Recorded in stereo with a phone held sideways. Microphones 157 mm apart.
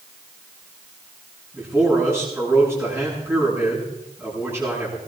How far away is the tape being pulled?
I don't hear tape being pulled.